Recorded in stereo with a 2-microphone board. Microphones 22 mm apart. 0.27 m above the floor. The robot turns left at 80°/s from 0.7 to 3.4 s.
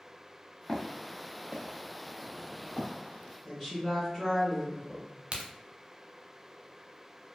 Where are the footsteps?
30° left (ahead or behind), 0.7 m; by 2.9 s 80° left, 1.5 m.